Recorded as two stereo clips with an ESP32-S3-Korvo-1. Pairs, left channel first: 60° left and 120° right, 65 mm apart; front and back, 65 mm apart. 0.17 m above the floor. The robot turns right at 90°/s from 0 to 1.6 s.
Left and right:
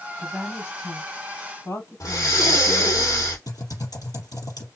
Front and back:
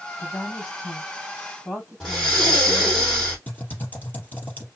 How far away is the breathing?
About 2.5 m.